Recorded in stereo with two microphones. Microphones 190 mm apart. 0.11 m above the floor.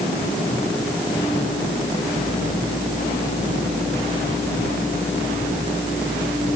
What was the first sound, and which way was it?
Only background noise.